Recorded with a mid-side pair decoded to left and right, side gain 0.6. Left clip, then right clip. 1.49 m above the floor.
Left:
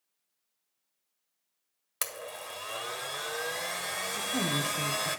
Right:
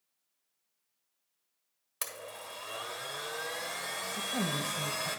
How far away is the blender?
About 1.4 m.